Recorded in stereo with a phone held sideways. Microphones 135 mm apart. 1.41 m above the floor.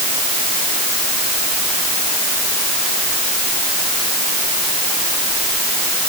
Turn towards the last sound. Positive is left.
No sound to turn to.